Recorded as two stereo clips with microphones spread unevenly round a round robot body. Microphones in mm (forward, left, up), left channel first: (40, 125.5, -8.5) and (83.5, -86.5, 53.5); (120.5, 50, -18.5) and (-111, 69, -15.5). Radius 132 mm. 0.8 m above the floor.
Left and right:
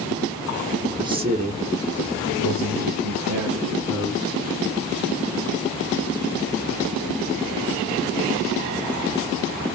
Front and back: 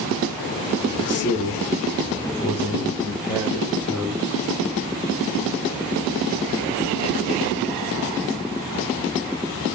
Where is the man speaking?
5° left, 1.1 m; by 4.4 s 100° right, 2.5 m.